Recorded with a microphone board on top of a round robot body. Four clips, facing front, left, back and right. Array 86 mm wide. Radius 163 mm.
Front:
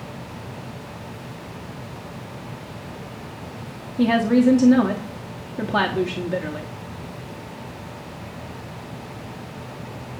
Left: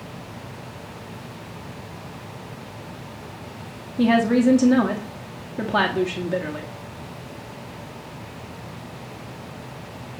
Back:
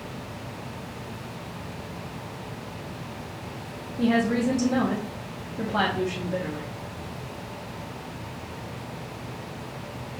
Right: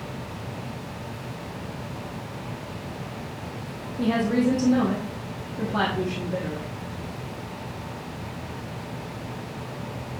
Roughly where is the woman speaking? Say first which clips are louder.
Left 5 dB, front 6 dB; ahead left.